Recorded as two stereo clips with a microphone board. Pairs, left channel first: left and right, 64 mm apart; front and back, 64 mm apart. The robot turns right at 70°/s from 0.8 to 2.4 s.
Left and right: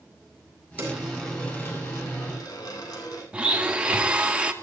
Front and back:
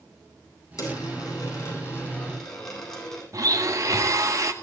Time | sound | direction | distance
0.8 | a dropped coin | 25° right | 9 m
3.3 | a blender | 165° right | 1.9 m